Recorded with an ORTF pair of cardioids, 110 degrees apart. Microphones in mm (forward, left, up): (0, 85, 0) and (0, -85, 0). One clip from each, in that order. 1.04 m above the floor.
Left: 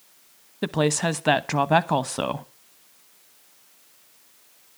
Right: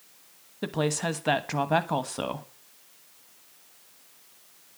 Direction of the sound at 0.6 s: 30° left.